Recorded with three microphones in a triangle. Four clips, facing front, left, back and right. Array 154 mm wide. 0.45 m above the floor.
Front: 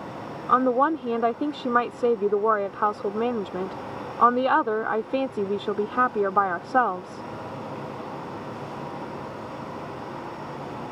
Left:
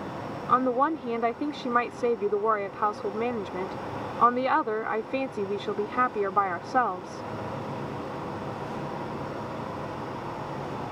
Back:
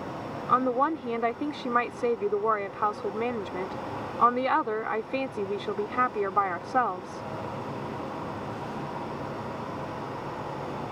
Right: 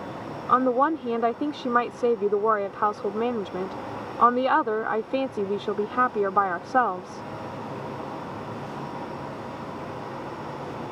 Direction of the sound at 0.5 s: 35° right.